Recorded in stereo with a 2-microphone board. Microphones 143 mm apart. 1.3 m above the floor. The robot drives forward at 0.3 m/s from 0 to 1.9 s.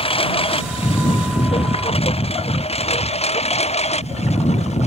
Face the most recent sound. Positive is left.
turn(degrees=50)  # may be behind; listen again after turning